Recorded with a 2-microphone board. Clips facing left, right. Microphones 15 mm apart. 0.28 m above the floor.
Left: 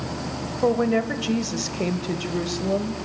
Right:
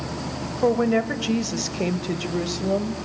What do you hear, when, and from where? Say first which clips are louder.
0.6 s a woman speaking: right 1 dB; 10° right (ahead or behind), 1.1 m